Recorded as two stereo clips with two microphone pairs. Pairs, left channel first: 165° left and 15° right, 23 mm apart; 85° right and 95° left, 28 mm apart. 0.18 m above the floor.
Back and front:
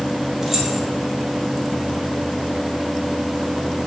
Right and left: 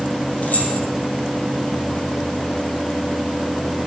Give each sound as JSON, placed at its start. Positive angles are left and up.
{"t": 0.4, "sound": "keys jangling", "azimuth_deg": -95, "distance_m": 4.0}